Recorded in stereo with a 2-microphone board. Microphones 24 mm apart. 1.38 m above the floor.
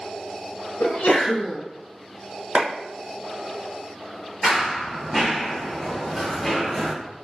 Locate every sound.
0.8 s a sneeze: 85° left, 1.5 m
2.5 s a clap: 60° right (ahead or behind), 1.1 m
4.4 s running footsteps: 5° right (ahead or behind), 1.5 m; by 6.9 s 15° left (ahead or behind), 1.4 m